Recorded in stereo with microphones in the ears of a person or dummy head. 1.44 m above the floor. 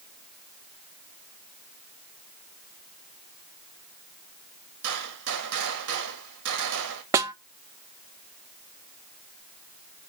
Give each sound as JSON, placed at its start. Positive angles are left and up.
{"t": 4.8, "sound": "a gunshot", "side_deg": -75, "distance_m": 1.9}
{"t": 7.1, "sound": "a snare drum", "side_deg": -20, "distance_m": 0.7}